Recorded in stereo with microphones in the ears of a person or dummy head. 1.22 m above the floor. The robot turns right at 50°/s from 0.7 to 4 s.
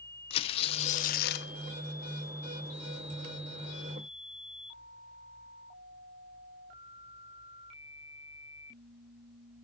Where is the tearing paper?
35° left, 0.9 m; by 1.5 s 80° left, 0.9 m.